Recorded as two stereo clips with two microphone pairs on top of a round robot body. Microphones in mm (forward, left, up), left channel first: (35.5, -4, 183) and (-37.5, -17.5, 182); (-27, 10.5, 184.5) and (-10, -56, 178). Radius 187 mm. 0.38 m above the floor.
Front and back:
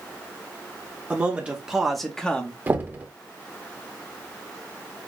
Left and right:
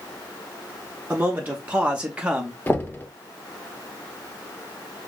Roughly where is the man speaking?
Behind right.